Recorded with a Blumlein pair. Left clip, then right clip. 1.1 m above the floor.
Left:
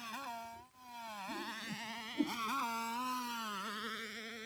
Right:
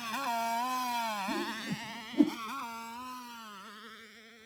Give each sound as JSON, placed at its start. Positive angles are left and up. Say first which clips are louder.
{"t": 0.0, "sound": "a motorcycle", "louder": "right 11 dB", "azimuth_deg": -70}
{"t": 1.3, "sound": "a whoosh", "louder": "right 7 dB", "azimuth_deg": -60}